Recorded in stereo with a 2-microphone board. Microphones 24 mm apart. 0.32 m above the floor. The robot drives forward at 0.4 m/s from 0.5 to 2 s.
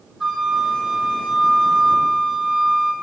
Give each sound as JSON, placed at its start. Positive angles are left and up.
{"t": 0.2, "sound": "a flute", "side_deg": -15, "distance_m": 6.5}